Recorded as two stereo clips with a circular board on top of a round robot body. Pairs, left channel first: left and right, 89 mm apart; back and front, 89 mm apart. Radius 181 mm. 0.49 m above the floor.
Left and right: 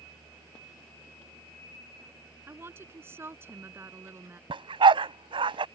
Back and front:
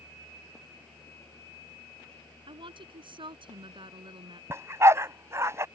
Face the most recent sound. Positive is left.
turn(degrees=-60)